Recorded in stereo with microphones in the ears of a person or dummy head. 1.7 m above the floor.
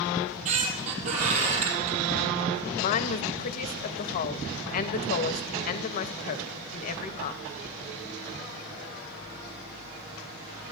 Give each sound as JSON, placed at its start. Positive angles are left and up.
{"t": 0.1, "sound": "a squeak", "side_deg": -45, "distance_m": 3.5}
{"t": 2.8, "sound": "a woman speaking", "side_deg": 45, "distance_m": 1.1}